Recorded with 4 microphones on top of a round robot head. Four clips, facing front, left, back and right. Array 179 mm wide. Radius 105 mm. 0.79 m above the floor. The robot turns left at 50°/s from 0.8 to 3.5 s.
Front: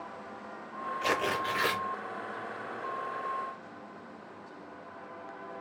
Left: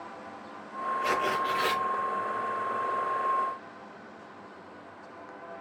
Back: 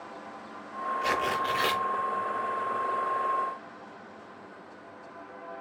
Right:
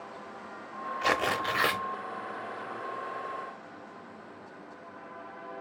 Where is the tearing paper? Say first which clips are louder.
Right 1 dB, back 1 dB; 75° right, 0.7 m; by 1.8 s 115° right, 0.7 m.